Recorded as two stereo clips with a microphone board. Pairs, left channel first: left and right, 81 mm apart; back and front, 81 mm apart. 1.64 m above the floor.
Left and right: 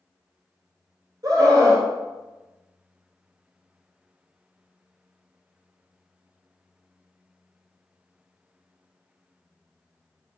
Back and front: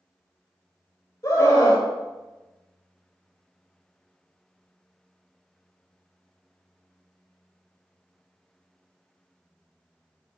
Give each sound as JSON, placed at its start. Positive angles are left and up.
{"t": 1.2, "sound": "a scream", "azimuth_deg": -135, "distance_m": 3.5}